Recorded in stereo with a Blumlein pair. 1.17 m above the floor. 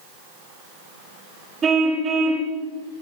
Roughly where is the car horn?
Ahead.